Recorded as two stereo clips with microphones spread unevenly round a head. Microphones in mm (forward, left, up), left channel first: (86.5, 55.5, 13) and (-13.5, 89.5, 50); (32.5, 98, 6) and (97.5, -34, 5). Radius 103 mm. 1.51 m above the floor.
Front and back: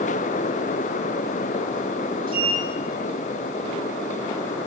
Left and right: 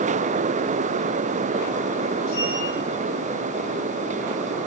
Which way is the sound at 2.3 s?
135° left.